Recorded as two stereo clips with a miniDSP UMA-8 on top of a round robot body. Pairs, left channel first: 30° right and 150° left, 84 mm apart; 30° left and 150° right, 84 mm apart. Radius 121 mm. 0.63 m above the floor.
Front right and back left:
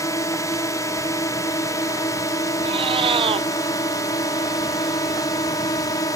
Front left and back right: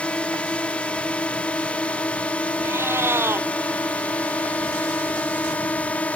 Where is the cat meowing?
145° left.